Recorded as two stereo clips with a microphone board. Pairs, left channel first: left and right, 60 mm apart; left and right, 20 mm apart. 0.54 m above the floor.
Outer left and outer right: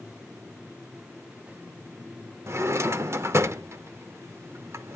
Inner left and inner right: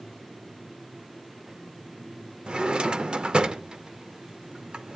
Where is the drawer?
50° right (ahead or behind), 0.5 m.